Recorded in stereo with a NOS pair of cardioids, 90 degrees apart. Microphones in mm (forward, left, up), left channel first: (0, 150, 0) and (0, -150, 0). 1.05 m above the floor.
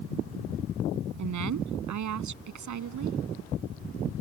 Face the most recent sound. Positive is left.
turn(degrees=-65)